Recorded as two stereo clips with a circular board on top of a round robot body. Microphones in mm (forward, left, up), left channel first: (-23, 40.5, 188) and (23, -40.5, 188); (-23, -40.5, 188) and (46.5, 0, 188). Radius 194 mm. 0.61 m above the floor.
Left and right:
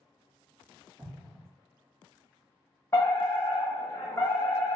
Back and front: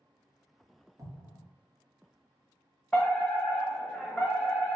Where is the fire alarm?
135° left, 1.6 m.